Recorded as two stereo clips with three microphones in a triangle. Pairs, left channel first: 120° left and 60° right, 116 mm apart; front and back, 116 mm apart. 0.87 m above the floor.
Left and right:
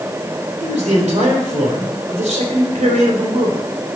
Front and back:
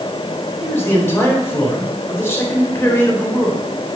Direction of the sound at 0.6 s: 70° right.